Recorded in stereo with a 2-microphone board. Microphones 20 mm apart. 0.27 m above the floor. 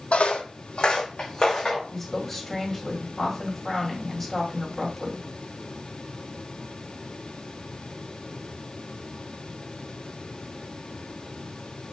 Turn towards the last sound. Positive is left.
turn(degrees=10)  # may be behind; listen again after turning